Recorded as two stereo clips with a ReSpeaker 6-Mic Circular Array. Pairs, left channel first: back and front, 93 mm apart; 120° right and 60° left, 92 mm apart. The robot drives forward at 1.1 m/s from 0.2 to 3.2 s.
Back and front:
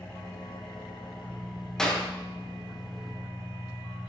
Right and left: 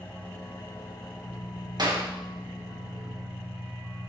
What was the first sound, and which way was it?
An engine running, 165° right.